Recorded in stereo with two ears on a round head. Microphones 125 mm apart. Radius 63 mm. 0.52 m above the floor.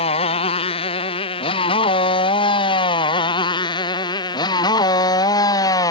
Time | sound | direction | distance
0.0 | a motorcycle | 45° left (ahead or behind) | ?